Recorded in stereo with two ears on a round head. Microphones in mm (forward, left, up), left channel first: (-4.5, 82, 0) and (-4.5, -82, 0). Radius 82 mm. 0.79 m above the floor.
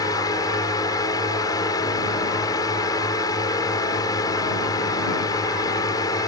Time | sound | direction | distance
0.0 | a drone | 20° left (ahead or behind) | ?